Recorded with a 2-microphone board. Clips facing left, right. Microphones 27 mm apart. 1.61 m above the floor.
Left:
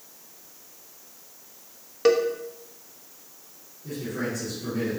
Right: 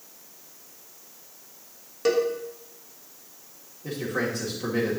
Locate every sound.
2.0 s a cowbell: 25° left (ahead or behind), 1.1 m
3.8 s a man speaking: 60° right (ahead or behind), 2.5 m